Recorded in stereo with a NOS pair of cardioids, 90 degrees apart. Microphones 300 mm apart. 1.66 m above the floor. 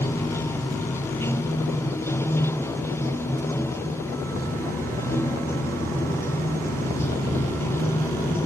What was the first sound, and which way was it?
Running water, 10° left.